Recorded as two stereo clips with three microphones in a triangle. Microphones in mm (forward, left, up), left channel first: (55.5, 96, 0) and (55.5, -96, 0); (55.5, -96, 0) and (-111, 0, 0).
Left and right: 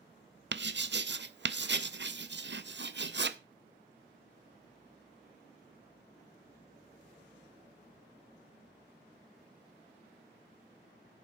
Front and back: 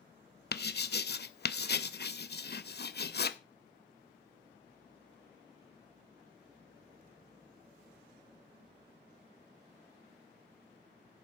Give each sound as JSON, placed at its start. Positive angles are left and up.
{"t": 0.5, "sound": "writing", "azimuth_deg": -65, "distance_m": 0.6}